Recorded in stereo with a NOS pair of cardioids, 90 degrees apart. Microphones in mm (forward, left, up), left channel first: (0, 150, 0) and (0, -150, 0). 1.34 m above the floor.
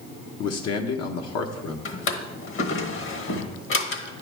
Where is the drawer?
50° left, 1.2 m.